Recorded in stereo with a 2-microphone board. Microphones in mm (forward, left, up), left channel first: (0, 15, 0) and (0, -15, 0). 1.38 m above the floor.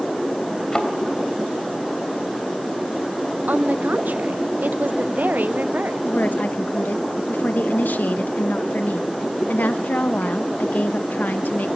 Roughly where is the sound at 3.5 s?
Right.